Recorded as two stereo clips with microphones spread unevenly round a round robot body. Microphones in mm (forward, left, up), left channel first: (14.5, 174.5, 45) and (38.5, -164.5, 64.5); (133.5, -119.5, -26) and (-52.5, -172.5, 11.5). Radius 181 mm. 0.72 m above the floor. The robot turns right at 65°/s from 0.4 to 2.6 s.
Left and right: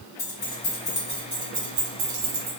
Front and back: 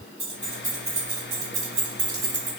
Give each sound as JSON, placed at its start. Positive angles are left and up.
{"t": 0.2, "sound": "keys jangling", "azimuth_deg": 120, "distance_m": 1.5}